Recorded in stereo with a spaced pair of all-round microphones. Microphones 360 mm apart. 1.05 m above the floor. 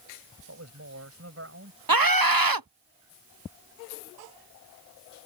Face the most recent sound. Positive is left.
turn(degrees=-70)  # may be behind; listen again after turning